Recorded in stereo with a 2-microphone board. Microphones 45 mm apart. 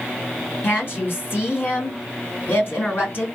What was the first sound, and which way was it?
A woman speaking, 50° left (ahead or behind).